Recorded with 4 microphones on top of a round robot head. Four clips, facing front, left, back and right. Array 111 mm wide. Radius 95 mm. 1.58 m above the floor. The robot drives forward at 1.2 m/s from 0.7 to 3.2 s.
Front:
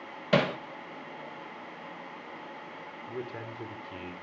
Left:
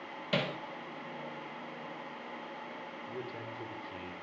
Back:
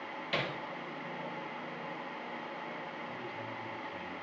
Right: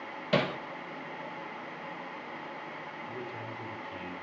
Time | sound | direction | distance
0.3 | hammering | 10° right | 2 m
3.1 | a man speaking | 15° left | 5 m